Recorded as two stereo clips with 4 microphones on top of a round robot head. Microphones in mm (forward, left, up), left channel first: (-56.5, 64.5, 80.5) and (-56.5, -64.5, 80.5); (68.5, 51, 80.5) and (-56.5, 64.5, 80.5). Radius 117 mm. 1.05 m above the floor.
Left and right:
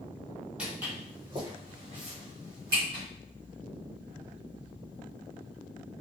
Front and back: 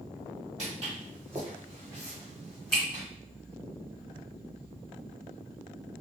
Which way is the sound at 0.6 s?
170° right.